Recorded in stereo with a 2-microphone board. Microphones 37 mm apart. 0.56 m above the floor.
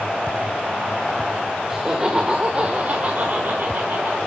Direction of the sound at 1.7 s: 15° right (ahead or behind).